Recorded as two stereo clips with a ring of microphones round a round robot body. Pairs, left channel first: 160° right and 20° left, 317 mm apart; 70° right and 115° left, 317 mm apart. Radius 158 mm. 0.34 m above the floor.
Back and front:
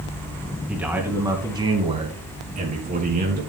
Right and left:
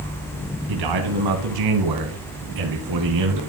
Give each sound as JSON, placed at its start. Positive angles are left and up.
{"t": 0.7, "sound": "a man speaking", "azimuth_deg": 110, "distance_m": 2.5}